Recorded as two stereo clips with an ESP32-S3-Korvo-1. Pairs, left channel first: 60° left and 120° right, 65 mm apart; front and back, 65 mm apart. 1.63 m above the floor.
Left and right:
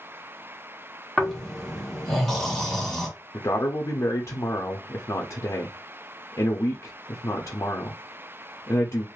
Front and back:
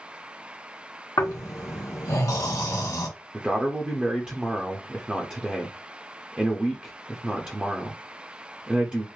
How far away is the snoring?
About 1.1 m.